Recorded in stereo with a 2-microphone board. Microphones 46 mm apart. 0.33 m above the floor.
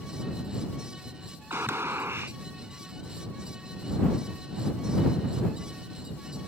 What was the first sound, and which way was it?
A gunshot, 70° right (ahead or behind).